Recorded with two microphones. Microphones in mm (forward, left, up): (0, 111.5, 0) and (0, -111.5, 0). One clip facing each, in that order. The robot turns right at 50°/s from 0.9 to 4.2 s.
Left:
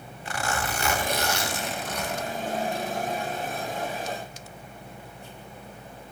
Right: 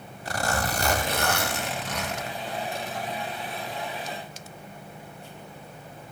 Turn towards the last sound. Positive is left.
turn(degrees=25)